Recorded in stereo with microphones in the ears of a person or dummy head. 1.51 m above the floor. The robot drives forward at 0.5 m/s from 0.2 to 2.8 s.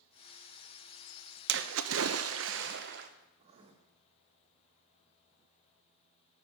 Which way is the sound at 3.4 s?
35° right (ahead or behind).